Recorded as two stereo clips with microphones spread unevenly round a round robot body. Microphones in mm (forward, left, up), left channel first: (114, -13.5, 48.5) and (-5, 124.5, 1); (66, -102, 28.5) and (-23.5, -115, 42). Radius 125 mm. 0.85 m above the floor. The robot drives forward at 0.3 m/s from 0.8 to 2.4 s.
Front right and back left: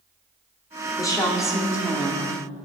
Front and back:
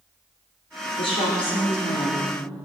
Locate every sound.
1.0 s a woman speaking: 25° left, 2.5 m; by 2.3 s 30° left, 2 m